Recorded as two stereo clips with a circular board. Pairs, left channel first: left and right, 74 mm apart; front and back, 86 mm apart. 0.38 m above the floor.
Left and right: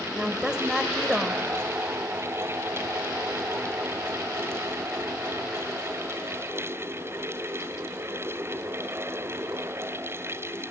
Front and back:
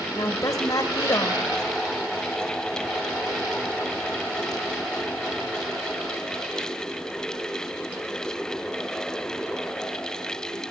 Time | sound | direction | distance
0.2 | a woman speaking | 15° right | 2 m